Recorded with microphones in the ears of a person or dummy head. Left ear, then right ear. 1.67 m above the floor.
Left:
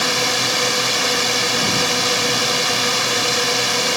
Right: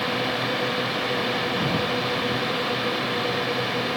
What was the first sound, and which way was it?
A drone, 85° left.